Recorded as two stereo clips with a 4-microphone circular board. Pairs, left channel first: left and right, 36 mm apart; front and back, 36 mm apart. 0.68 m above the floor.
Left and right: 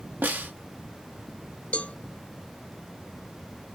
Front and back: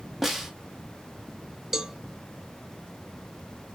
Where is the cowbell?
105° left, 0.5 m.